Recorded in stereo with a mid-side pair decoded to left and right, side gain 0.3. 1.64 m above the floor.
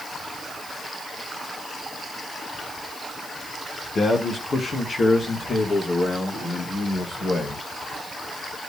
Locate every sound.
4.0 s a man speaking: 55° left, 1.4 m; by 7.7 s 65° left, 4 m